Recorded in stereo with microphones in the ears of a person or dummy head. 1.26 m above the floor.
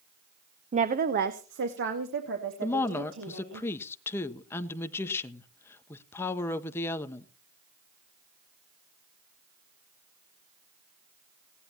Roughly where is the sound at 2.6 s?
Centre.